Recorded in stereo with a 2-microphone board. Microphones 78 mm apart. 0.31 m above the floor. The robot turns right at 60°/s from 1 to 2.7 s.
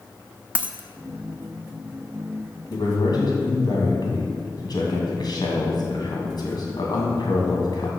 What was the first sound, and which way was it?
A dropped coin, 20° right (ahead or behind).